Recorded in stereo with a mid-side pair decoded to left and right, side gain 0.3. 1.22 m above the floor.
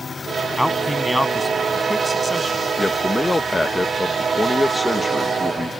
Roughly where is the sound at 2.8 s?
Ahead left.